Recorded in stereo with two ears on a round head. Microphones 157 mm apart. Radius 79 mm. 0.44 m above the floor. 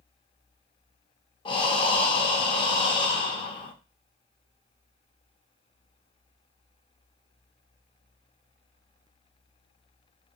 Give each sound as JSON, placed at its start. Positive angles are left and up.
{"t": 1.4, "sound": "breathing", "side_deg": 30, "distance_m": 0.6}